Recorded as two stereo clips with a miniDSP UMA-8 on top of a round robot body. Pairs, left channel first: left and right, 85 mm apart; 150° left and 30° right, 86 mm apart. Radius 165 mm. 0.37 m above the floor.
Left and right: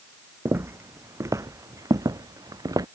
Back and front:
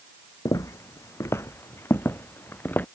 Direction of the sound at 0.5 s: 155° right.